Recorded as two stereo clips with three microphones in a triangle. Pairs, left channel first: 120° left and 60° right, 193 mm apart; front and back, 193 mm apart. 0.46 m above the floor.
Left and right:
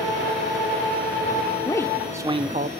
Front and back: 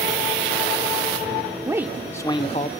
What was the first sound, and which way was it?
A man speaking, 140° left.